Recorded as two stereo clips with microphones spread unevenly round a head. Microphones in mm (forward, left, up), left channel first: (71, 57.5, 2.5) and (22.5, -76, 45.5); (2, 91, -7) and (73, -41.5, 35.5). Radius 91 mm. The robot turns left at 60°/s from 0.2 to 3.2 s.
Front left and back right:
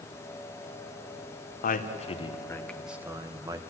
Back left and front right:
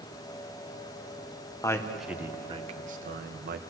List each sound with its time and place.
1.6 s a man speaking: 50° left, 1.8 m; by 3.6 s 45° right, 1.8 m